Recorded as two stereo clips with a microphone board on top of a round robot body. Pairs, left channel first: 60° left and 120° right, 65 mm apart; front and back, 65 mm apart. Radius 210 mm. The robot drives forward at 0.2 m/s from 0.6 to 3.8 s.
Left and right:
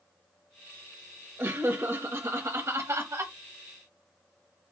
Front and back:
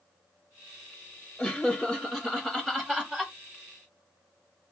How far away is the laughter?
About 1.2 m.